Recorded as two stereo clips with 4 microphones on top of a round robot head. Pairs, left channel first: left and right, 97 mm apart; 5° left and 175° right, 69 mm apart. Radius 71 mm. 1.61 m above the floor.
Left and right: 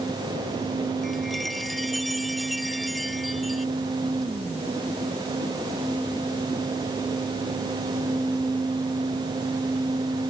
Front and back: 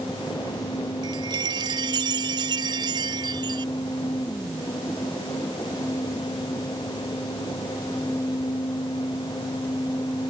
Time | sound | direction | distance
1.0 | a chime | straight behind | ?